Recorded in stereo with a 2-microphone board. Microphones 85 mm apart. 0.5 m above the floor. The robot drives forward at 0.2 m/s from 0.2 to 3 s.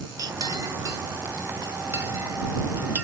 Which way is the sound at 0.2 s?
40° right (ahead or behind).